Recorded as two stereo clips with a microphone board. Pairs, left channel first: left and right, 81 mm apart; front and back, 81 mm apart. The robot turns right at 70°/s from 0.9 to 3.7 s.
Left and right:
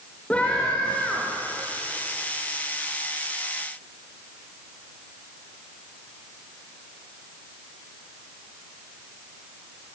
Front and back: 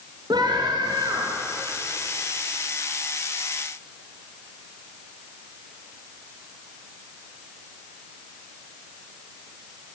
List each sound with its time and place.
0.3 s a scream: 165° left, 3.5 m; by 1.4 s 165° right, 3.5 m